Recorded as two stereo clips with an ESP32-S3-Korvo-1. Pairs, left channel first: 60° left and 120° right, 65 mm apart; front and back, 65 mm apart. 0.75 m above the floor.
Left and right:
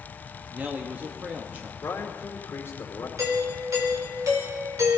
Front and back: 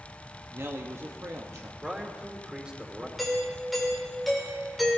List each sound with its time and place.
0.5 s a man speaking: 175° right, 1.2 m
1.8 s a man speaking: 105° left, 2.5 m
3.2 s a doorbell: 90° right, 4 m